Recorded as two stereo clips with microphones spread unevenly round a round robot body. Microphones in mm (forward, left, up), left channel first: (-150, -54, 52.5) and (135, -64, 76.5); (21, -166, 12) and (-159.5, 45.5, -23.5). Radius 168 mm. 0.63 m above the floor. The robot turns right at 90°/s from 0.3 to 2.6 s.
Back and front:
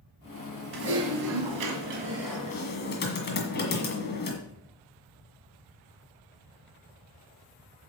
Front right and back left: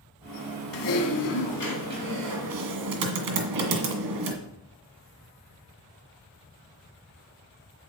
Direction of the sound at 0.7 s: 50° right.